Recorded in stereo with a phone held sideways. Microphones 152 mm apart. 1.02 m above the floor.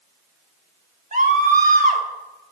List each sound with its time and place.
1.1 s a scream: 60° right (ahead or behind), 1.8 m